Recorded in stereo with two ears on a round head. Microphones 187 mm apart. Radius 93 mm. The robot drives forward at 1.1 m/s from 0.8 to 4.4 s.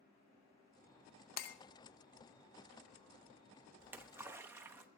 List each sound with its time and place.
1.4 s breaking glass: 45° left (ahead or behind), 0.8 m; by 1.6 s 50° left (ahead or behind), 0.7 m
3.8 s a splash: 10° right (ahead or behind), 0.8 m